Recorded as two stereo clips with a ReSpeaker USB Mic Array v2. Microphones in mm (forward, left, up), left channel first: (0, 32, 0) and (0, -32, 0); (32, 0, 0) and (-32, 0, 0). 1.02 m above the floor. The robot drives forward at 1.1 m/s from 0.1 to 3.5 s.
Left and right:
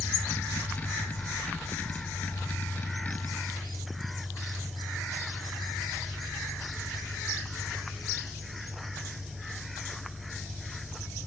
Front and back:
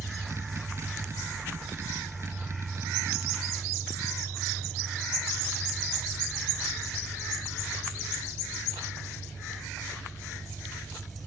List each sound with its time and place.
0.0 s an engine running: 110° right, 3 m; by 11.3 s 150° right, 5.5 m